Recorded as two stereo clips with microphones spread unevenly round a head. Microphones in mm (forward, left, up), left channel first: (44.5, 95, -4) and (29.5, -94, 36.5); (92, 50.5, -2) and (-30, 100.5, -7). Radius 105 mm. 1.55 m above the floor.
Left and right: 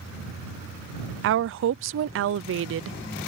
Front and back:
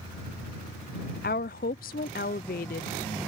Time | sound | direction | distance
1.2 | a woman speaking | 70° right | ?